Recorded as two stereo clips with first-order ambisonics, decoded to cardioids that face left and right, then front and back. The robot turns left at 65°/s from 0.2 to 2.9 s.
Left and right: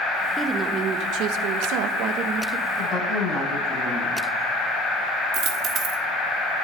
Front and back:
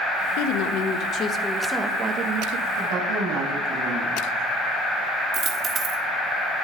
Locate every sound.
0.4 s a woman speaking: 5° right, 1.2 m; by 2.7 s 155° right, 1.2 m
2.8 s a woman speaking: 165° right, 7 m; by 4.3 s 175° right, 7 m
5.3 s a dropped coin: 125° right, 1.4 m